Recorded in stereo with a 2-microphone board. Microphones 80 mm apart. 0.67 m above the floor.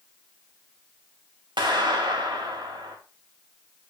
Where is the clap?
80° right, 2.5 m.